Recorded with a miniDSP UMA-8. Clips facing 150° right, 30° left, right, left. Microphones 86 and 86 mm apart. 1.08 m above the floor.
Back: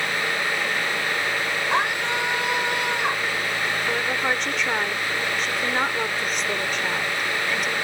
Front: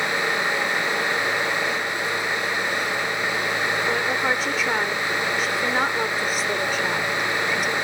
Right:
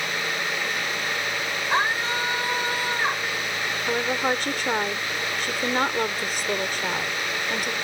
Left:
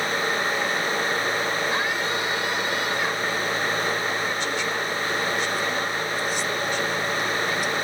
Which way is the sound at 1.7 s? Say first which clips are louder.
Back 3 dB, right 1 dB; 145° right.